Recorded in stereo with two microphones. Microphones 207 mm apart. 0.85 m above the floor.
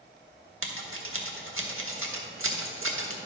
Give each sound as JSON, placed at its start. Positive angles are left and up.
{"t": 0.6, "sound": "scissors", "side_deg": -85, "distance_m": 1.2}